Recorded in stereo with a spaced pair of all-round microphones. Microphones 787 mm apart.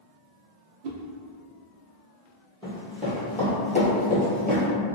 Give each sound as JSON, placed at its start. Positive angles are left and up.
{"t": 0.8, "sound": "a whoosh", "side_deg": -90, "distance_m": 0.6}
{"t": 2.6, "sound": "running footsteps", "side_deg": 5, "distance_m": 1.7}